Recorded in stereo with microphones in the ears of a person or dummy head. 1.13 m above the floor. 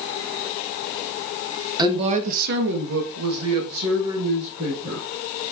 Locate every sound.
1.8 s a woman speaking: 25° right (ahead or behind), 1.0 m; by 5.0 s 65° right (ahead or behind), 2 m